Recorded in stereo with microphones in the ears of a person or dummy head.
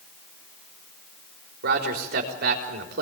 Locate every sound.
1.6 s a man speaking: 55° right (ahead or behind), 4 m